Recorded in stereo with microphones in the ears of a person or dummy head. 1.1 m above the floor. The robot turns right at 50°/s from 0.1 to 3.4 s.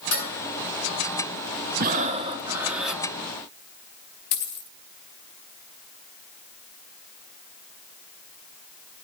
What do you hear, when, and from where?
0.1 s dishes clattering: 80° left, 7 m; by 0.3 s 85° left, 7 m
1.8 s breathing: 50° right, 0.9 m; by 3.0 s 10° left, 0.9 m
4.3 s a dropped coin: 50° left (ahead or behind), 0.9 m